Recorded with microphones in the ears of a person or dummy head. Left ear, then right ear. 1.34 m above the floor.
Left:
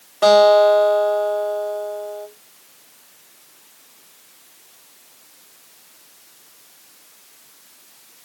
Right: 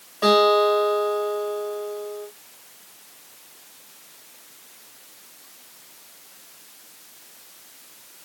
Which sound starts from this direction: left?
A guitar, at 0.2 s.